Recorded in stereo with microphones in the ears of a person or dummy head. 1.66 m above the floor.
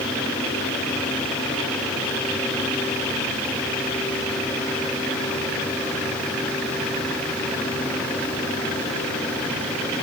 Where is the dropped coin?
No dropped coin in this recording.